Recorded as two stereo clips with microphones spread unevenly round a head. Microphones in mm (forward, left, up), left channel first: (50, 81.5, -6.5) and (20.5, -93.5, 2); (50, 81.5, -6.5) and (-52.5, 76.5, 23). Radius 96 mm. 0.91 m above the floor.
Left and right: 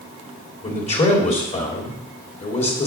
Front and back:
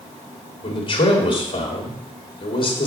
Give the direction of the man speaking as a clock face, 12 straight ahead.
11 o'clock.